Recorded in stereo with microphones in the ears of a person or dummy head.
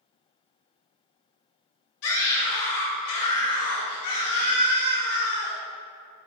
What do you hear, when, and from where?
2.0 s a scream: 70° left (ahead or behind), 1.6 m